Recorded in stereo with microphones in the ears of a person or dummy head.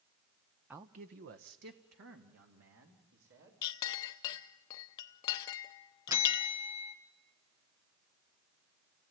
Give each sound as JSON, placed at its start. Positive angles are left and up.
{"t": 0.7, "sound": "a man speaking", "side_deg": -5, "distance_m": 0.5}
{"t": 3.6, "sound": "a clink", "side_deg": 20, "distance_m": 0.5}
{"t": 6.1, "sound": "a bell", "side_deg": -20, "distance_m": 1.9}